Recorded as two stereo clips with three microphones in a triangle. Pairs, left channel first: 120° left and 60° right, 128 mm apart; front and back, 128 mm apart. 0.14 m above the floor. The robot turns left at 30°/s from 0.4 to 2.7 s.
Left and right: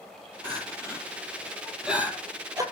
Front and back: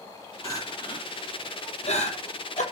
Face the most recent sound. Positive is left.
turn(degrees=0)